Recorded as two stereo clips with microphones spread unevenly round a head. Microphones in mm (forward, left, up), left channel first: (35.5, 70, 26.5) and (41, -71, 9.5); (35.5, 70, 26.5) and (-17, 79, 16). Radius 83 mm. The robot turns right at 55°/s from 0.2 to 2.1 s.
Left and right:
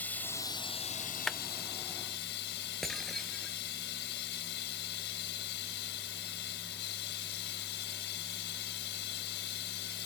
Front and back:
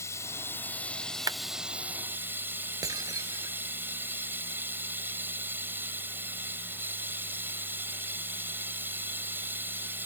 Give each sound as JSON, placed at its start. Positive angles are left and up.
{"t": 0.0, "sound": "running water", "azimuth_deg": 15}
{"t": 1.3, "sound": "a clap", "azimuth_deg": 180}
{"t": 2.8, "sound": "breaking glass", "azimuth_deg": 180}